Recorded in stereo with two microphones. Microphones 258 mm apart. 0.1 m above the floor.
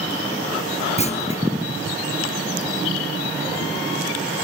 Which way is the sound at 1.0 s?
25° left (ahead or behind).